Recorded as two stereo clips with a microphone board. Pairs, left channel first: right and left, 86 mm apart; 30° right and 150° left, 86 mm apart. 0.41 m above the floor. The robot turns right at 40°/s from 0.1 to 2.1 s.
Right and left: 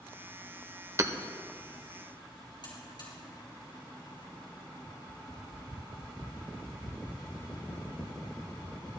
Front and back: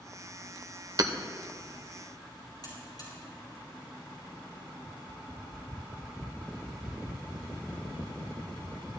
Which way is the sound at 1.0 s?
130° left.